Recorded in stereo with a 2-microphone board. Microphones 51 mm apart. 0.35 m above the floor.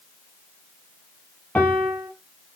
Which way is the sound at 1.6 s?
20° left (ahead or behind).